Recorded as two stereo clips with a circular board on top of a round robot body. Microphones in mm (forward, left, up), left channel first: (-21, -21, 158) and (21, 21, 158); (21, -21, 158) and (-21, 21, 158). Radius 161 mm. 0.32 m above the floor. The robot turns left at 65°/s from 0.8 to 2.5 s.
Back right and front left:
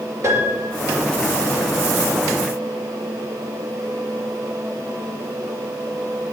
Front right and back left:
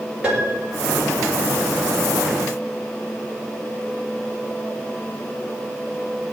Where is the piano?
60° left, 5.5 m.